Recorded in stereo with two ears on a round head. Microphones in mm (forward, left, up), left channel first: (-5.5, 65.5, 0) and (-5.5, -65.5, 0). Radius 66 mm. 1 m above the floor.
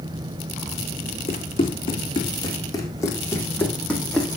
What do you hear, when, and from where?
1.3 s running footsteps: 40° left (ahead or behind), 2.5 m; by 4.4 s centre (ahead or behind), 2 m